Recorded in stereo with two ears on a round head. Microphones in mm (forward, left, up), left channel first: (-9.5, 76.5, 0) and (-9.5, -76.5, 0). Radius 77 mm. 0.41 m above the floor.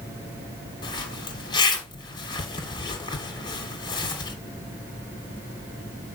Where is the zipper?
30° left (ahead or behind), 2.5 m.